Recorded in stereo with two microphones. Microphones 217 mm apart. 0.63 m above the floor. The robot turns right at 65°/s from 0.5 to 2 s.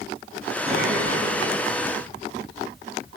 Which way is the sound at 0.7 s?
150° right.